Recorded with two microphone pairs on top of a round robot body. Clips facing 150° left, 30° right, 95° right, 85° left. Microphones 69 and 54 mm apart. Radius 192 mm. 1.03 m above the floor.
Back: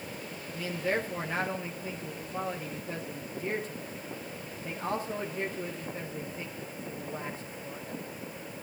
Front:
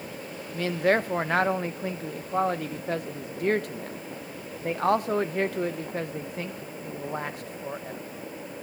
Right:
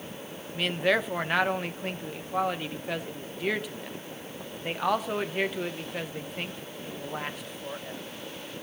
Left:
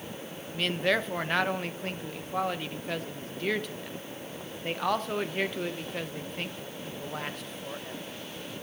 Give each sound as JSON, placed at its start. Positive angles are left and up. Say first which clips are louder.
{"t": 0.5, "sound": "a man speaking", "louder": "front 8 dB, right 2 dB", "azimuth_deg": -5, "distance_m": 1.2}